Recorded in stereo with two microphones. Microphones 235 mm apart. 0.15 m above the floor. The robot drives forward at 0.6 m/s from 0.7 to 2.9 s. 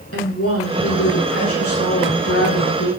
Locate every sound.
0.1 s a woman speaking: 75° left (ahead or behind), 7 m